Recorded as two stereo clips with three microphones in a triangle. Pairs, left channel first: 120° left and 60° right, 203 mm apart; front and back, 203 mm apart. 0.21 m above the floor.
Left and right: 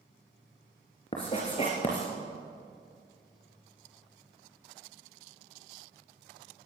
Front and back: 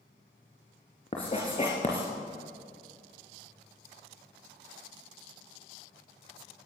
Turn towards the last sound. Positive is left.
turn(degrees=65)